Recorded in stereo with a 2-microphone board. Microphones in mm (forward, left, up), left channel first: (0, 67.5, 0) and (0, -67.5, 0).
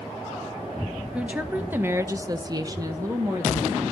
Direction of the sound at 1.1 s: 10° right (ahead or behind).